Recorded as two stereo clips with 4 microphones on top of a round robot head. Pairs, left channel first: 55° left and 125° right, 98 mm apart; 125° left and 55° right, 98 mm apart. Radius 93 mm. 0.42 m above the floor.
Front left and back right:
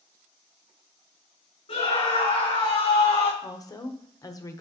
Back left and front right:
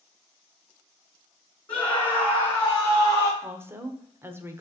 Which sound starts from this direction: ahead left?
A scream, at 1.7 s.